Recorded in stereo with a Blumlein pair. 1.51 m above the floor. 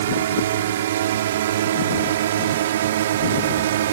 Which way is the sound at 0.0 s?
60° right.